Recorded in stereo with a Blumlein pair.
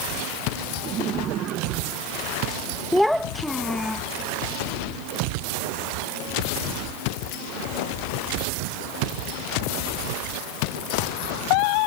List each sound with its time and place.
0.8 s laughter: 30° right
2.9 s a child speaking: straight ahead